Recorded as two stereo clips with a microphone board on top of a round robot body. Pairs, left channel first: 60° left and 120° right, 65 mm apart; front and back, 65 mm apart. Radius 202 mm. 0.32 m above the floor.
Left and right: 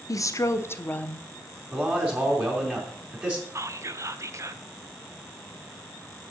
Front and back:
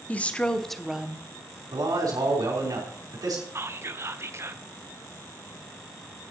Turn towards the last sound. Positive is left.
turn(degrees=-145)